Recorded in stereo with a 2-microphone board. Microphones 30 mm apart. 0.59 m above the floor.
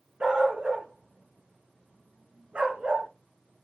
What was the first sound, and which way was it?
A dog barking, 40° right (ahead or behind).